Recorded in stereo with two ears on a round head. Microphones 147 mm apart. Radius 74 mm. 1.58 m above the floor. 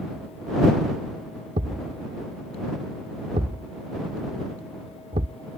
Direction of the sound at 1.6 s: 35° right (ahead or behind).